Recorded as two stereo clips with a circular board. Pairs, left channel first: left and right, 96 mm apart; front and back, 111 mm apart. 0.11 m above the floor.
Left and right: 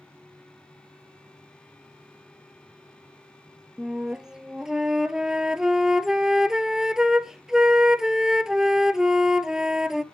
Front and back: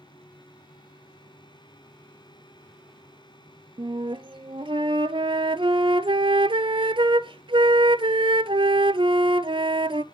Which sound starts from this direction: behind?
A flute, at 3.8 s.